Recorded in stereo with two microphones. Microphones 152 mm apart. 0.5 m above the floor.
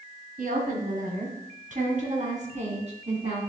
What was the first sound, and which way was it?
A woman speaking, 70° right (ahead or behind).